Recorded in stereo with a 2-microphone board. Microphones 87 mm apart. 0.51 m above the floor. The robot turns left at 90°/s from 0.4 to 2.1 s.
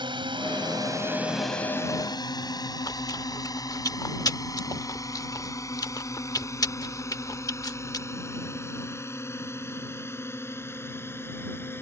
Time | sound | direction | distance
0.0 | a drone | 65° right (ahead or behind) | ?
2.8 | chewing | 45° left (ahead or behind) | ?